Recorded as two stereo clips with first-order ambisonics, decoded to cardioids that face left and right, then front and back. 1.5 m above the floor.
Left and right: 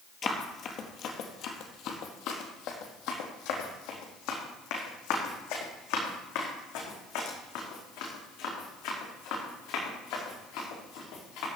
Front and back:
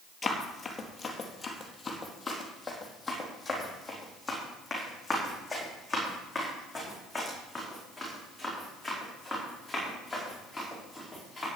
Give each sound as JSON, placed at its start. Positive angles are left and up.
{"t": 0.2, "sound": "running footsteps", "azimuth_deg": 65, "distance_m": 1.7}